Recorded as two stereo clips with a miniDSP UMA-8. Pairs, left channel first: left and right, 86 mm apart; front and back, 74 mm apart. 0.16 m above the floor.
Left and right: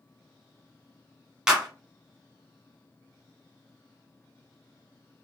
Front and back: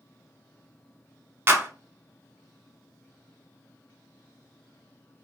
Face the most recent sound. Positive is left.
turn(degrees=-165)